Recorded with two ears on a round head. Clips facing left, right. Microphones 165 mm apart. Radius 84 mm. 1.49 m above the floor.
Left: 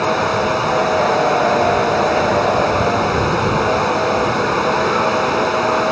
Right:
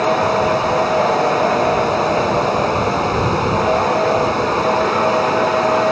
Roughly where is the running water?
Centre.